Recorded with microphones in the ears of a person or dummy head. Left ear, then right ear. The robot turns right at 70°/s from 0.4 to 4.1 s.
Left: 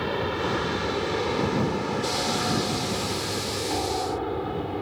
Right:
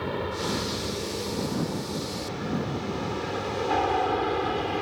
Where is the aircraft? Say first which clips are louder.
Left 3 dB; 10° left (ahead or behind); by 4.8 s 65° right (ahead or behind).